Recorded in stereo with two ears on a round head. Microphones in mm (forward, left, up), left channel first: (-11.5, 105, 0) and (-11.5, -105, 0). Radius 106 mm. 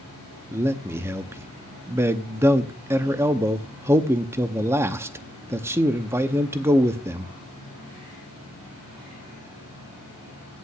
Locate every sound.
0.5 s a man speaking: 10° right (ahead or behind), 0.7 m